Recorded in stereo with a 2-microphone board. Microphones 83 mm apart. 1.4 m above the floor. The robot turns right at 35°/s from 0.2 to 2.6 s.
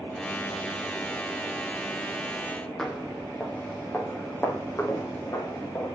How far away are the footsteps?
About 3.5 m.